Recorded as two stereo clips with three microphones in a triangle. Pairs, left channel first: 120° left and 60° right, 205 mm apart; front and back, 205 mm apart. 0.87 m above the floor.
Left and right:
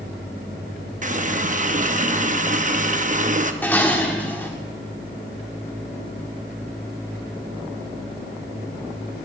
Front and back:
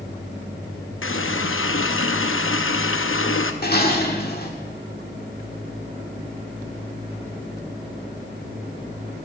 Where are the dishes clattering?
40° left, 1.6 m.